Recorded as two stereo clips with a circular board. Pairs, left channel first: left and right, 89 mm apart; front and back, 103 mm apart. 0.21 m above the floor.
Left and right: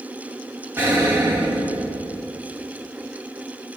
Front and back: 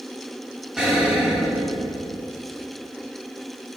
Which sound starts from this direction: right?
An explosion, at 0.8 s.